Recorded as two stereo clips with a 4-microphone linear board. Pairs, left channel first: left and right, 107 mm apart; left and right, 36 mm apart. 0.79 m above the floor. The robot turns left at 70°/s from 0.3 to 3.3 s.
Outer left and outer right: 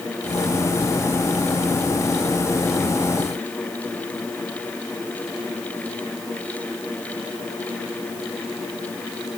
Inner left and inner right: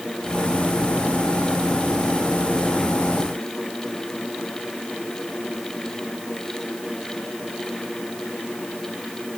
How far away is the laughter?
No laughter in this recording.